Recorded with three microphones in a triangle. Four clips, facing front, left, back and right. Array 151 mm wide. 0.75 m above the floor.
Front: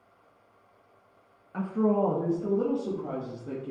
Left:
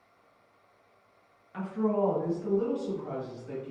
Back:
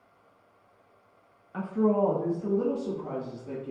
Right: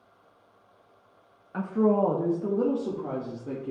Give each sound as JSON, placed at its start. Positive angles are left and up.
{"t": 1.5, "sound": "a woman speaking", "azimuth_deg": -95, "distance_m": 0.8}